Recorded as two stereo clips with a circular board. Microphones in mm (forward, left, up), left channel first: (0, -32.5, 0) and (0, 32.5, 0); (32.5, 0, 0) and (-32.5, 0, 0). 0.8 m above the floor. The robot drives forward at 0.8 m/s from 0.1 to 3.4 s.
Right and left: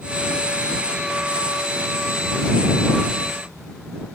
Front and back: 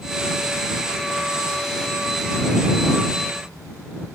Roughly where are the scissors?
I don't hear scissors.